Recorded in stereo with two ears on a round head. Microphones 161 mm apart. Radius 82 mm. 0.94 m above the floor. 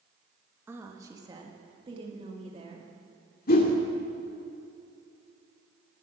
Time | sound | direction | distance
0.7 | a woman speaking | 10° right (ahead or behind) | 1.5 m
3.5 | a whoosh | 55° left (ahead or behind) | 1.8 m